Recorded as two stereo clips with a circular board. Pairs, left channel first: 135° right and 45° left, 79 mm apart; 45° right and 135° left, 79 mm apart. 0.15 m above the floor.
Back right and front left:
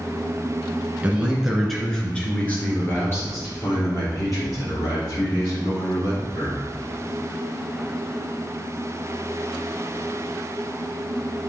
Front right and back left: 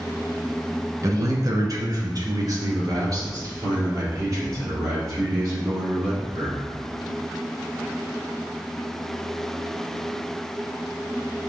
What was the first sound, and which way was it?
A man speaking, 110° left.